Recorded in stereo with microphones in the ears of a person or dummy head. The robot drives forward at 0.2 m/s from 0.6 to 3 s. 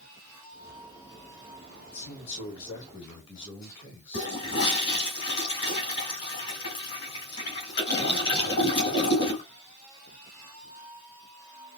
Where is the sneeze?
No sneeze in this recording.